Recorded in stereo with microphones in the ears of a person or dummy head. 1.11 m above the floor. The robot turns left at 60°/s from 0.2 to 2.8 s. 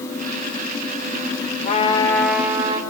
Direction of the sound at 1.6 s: 40° left.